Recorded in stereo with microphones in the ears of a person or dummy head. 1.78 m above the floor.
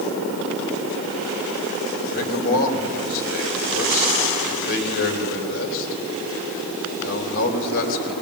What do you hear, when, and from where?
2.1 s a man speaking: 55° left (ahead or behind), 3.5 m